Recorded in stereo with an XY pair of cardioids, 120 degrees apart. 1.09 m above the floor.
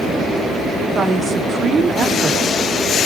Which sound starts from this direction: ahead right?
A woman speaking, at 0.9 s.